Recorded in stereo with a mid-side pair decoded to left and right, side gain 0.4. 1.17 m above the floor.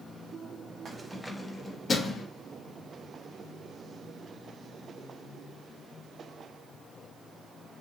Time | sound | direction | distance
0.8 | keys jangling | 45° right | 0.6 m